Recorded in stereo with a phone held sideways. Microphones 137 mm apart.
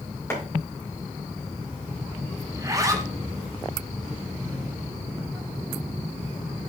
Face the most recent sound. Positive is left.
turn(degrees=-25)  # may be behind; listen again after turning